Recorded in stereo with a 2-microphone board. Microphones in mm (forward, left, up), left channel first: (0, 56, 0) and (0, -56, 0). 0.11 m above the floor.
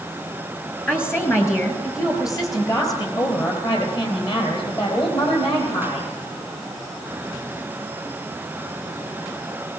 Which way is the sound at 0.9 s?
15° left (ahead or behind).